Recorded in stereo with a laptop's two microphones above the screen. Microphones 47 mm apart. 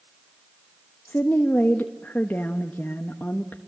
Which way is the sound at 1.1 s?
45° left (ahead or behind).